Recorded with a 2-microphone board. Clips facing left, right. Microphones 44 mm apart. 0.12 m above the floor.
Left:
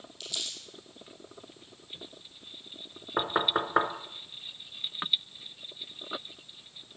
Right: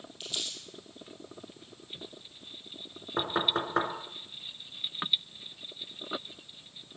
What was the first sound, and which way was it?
Crumpling, 25° right (ahead or behind).